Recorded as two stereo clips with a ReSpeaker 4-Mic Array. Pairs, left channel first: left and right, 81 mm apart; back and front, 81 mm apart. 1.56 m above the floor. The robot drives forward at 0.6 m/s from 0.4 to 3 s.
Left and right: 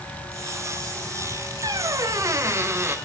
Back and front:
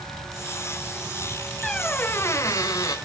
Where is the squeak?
95° right, 0.7 m; by 3.0 s 150° right, 1.1 m.